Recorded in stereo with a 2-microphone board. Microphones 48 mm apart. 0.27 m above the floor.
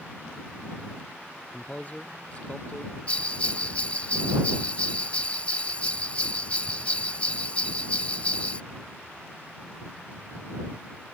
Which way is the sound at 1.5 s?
30° left (ahead or behind).